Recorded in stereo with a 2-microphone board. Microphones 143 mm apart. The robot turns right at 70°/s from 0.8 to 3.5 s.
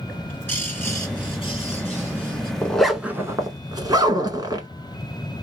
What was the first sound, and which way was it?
A bird, 20° left.